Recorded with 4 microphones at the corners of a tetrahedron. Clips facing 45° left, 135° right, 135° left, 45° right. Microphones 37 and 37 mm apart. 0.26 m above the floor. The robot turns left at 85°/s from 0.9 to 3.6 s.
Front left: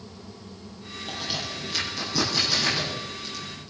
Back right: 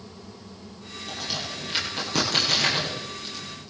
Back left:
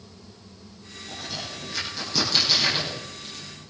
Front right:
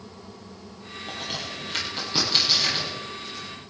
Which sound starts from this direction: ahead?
A crack, at 1.1 s.